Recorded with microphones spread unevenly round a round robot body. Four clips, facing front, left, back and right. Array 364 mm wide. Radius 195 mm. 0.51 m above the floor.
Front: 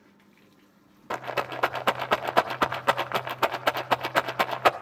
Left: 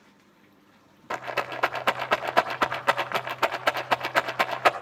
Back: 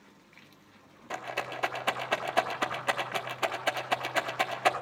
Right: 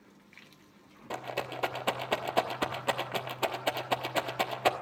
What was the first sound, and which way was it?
A rattle, 20° left.